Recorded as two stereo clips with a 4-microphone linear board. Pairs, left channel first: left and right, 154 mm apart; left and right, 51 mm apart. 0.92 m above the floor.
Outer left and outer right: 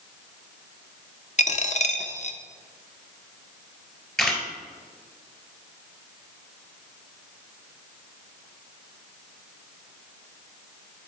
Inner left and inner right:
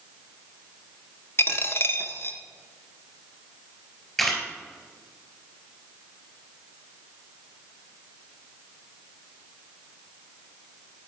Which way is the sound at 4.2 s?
5° left (ahead or behind).